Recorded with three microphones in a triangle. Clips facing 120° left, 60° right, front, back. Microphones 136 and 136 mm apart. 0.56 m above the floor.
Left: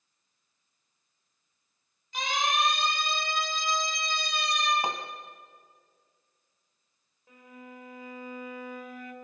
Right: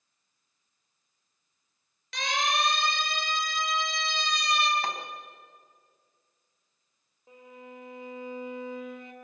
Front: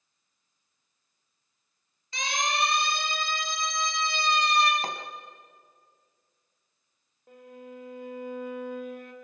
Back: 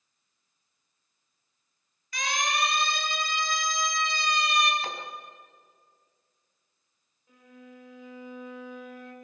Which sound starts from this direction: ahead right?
A siren, at 2.1 s.